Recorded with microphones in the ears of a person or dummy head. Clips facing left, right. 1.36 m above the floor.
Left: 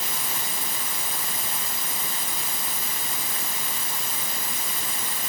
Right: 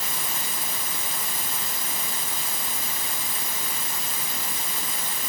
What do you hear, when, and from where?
Only background noise.